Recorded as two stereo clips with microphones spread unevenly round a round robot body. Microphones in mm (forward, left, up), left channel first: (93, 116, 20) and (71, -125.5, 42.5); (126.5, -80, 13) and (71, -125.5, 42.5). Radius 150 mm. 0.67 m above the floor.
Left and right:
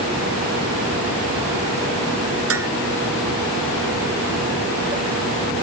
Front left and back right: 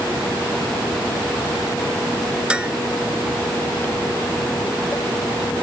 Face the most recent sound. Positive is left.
turn(degrees=-65)